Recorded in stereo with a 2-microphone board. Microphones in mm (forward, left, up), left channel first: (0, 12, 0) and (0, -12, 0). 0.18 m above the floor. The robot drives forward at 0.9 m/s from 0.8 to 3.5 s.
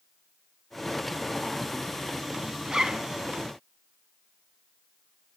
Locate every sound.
2.6 s a zipper: 25° right (ahead or behind), 0.7 m; by 3.1 s 30° right (ahead or behind), 0.6 m